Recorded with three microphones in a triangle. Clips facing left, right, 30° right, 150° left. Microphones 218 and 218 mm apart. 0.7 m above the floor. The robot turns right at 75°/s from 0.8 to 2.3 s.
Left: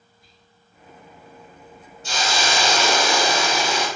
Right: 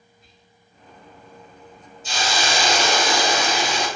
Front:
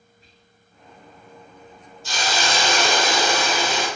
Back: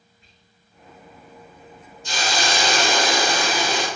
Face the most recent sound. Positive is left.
turn(degrees=100)